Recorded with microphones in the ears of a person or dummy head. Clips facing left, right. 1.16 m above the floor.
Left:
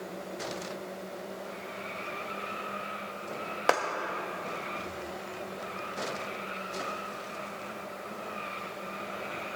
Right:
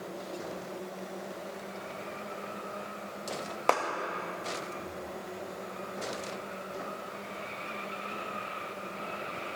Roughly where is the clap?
Centre.